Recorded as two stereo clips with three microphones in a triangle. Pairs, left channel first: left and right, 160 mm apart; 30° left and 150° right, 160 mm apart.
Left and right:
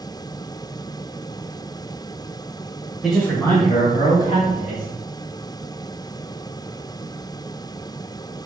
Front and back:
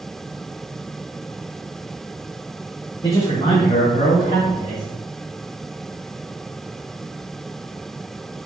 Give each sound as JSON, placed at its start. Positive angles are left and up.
{"t": 3.0, "sound": "a man speaking", "azimuth_deg": -5, "distance_m": 1.0}